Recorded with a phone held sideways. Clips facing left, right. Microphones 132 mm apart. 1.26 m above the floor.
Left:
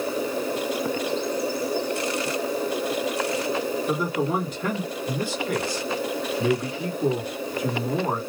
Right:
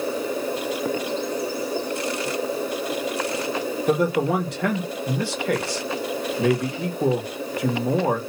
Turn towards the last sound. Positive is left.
turn(degrees=-75)  # may be behind; listen again after turning